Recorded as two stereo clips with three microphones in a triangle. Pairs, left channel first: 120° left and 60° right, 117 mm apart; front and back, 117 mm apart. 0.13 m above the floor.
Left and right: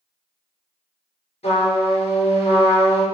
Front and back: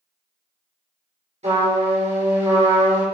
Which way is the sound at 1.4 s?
155° left.